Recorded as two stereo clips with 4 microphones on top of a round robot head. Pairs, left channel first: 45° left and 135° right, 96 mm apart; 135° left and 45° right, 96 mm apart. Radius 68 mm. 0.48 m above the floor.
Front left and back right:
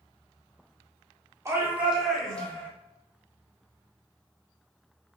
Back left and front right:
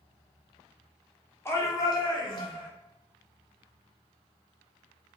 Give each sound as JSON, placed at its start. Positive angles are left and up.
{"t": 1.4, "sound": "a shout", "azimuth_deg": -175, "distance_m": 1.2}